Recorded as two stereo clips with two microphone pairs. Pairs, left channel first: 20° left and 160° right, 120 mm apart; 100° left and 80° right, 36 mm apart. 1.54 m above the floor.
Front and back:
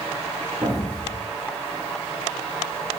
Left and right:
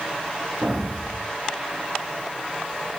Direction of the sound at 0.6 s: 115° right.